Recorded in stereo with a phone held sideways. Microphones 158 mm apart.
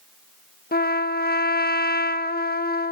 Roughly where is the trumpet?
Left.